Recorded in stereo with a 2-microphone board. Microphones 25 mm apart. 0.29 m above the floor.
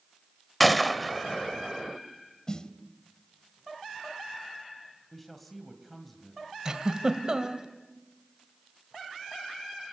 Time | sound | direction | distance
0.6 | a gunshot | centre (ahead or behind) | 1.0 m
2.5 | a snare drum | 30° left (ahead or behind) | 1.7 m
5.1 | a man speaking | 5° left (ahead or behind) | 2 m
6.7 | a giggle | 30° right (ahead or behind) | 1.7 m